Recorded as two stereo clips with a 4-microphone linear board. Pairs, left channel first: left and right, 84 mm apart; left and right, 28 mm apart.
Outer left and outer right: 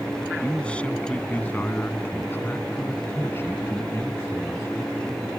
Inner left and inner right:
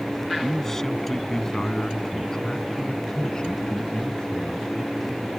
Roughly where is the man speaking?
Centre.